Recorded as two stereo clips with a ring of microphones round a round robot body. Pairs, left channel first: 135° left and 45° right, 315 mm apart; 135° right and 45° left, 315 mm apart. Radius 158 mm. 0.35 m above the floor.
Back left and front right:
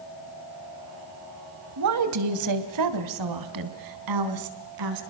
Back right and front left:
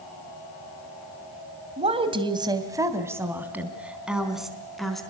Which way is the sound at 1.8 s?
20° right.